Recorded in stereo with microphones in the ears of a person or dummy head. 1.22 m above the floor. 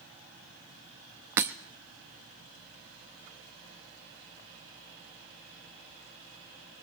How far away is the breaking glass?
About 0.6 m.